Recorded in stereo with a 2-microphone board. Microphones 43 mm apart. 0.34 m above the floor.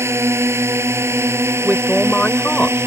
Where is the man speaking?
20° left (ahead or behind).